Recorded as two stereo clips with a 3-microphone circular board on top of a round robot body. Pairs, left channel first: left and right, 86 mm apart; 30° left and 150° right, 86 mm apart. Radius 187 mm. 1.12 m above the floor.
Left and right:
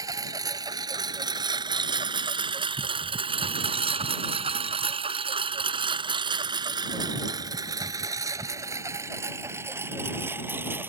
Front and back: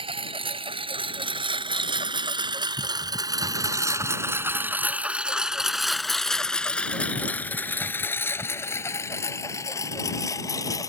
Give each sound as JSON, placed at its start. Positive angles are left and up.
{"t": 0.0, "sound": "a lawn mower", "azimuth_deg": -140}